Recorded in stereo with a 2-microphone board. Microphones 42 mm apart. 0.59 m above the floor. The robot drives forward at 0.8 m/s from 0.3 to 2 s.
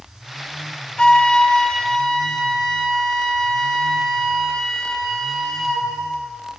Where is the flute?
25° left (ahead or behind), 0.6 m; by 5.9 s 15° left (ahead or behind), 1.1 m.